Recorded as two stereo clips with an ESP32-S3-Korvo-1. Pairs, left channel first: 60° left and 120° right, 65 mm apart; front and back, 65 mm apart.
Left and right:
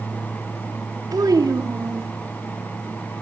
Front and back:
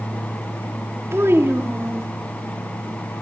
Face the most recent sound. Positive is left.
turn(degrees=-130)